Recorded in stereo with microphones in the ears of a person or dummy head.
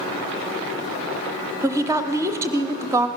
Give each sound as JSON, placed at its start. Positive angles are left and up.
{"t": 1.6, "sound": "a woman speaking", "side_deg": -15, "distance_m": 0.7}